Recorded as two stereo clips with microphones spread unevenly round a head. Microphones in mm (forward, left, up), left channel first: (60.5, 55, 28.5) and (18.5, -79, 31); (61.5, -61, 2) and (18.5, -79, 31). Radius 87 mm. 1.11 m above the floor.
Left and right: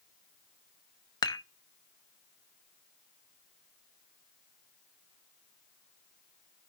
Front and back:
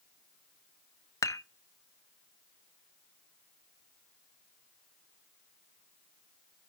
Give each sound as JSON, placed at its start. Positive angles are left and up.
{"t": 1.2, "sound": "dishes clattering", "azimuth_deg": 10, "distance_m": 0.9}